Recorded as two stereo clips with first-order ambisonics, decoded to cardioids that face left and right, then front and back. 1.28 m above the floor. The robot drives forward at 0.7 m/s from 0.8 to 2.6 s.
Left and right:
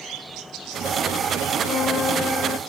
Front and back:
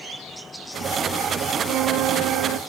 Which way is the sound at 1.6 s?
140° left.